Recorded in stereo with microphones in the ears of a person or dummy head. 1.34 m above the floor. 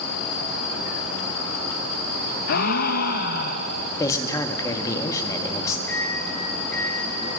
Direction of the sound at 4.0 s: 20° left (ahead or behind).